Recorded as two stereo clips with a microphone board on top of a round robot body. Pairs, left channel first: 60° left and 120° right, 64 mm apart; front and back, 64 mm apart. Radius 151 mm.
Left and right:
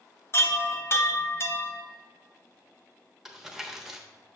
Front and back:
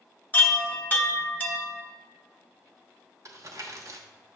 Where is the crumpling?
160° left, 1.1 m.